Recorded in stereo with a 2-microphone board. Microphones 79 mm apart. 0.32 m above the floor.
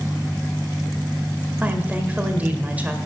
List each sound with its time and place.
1.6 s a woman speaking: 20° right (ahead or behind), 1.2 m